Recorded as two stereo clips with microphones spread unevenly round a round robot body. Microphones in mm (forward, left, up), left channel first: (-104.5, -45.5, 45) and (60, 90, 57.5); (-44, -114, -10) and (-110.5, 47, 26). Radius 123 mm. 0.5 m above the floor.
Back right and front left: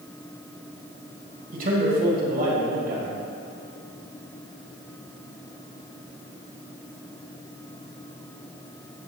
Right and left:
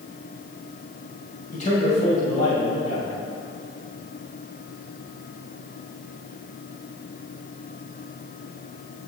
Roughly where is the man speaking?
Ahead.